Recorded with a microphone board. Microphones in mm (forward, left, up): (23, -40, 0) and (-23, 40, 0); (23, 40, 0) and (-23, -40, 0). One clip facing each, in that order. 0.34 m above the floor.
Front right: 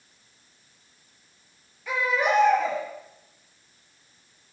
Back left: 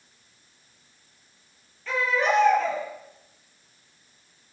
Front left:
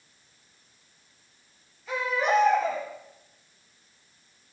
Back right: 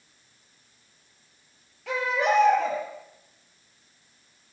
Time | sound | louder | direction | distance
1.9 | a baby crying | even, back right 1 dB | 140° right | 5.5 m